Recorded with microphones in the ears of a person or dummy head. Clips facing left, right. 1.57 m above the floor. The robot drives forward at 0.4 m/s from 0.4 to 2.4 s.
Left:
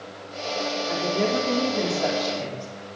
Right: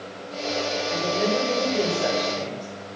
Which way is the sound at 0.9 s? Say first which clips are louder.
Even; 75° left (ahead or behind).